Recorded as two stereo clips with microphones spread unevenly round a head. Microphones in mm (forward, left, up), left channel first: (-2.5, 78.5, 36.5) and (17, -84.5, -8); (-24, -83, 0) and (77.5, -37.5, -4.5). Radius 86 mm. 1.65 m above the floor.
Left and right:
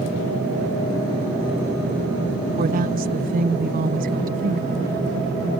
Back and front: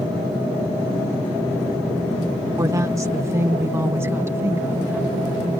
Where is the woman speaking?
40° right; by 5.6 s 45° right.